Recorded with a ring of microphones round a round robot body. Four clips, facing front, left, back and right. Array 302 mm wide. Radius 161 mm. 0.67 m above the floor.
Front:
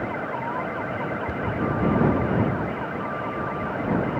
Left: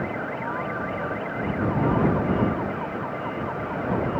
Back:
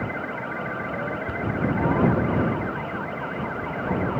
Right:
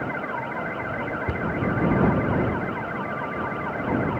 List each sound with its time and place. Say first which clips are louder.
1.3 s a cupboard door: right 1 dB, front 1 dB; 85° right